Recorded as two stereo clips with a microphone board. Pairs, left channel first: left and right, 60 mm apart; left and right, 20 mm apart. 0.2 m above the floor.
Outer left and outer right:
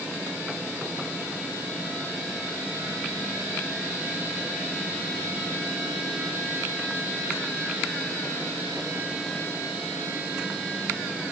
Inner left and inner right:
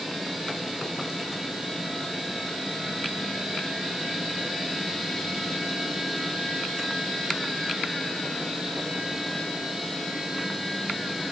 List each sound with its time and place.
Only background noise.